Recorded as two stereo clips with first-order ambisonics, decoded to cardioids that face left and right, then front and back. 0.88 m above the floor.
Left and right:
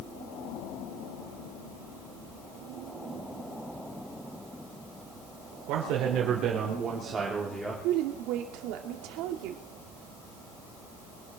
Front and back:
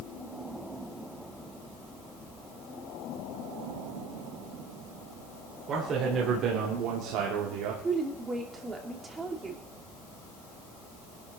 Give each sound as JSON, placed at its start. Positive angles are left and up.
{"t": 5.7, "sound": "a man speaking", "azimuth_deg": -120, "distance_m": 3.5}
{"t": 7.8, "sound": "a woman speaking", "azimuth_deg": -105, "distance_m": 2.5}